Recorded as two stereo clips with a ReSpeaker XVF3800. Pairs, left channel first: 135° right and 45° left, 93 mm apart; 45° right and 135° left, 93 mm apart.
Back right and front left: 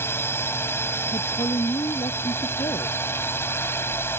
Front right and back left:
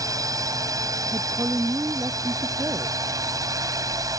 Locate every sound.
0.0 s a drone: 170° left
1.1 s a woman speaking: 165° right